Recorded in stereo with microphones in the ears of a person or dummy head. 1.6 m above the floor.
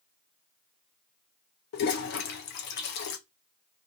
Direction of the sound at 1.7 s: 55° left (ahead or behind).